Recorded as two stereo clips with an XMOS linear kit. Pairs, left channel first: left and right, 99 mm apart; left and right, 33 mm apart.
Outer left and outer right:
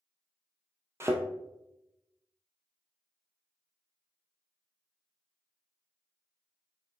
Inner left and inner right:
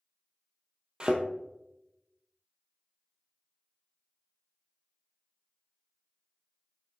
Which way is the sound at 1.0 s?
25° right (ahead or behind).